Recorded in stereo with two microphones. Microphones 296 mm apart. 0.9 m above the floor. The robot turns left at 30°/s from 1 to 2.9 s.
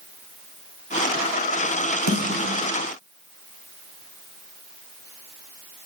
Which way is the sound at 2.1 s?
70° right (ahead or behind).